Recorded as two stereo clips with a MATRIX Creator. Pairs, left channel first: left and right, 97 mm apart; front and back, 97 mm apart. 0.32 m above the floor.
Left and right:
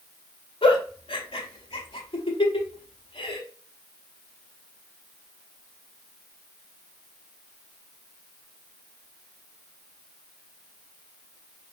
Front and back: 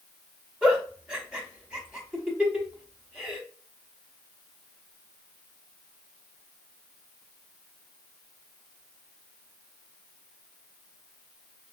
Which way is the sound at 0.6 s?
100° left.